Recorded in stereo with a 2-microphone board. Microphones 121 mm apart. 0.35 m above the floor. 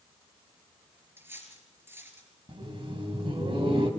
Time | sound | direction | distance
1.2 | cutlery clinking | 20° right (ahead or behind) | 3.5 m
2.5 | laughter | 50° right (ahead or behind) | 2.5 m